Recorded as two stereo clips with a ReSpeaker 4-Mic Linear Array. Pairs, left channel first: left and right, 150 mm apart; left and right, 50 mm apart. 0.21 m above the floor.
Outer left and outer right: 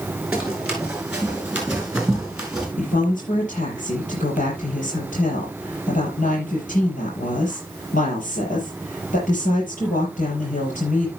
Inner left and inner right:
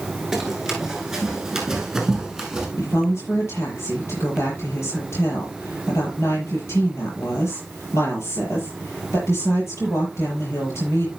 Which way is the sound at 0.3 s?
5° right (ahead or behind).